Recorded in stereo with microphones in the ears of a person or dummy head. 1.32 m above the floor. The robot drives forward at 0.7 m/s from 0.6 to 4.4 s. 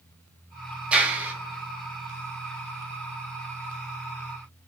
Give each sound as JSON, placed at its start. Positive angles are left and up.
{"t": 0.9, "sound": "a clap", "side_deg": -10, "distance_m": 1.7}